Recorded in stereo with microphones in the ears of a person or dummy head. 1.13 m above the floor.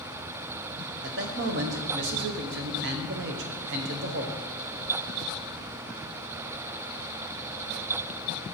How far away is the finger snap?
No finger snap in this recording.